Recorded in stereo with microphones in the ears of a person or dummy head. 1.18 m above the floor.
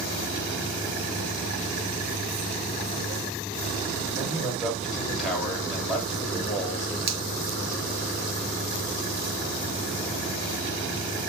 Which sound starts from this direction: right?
A finger snap, at 7.1 s.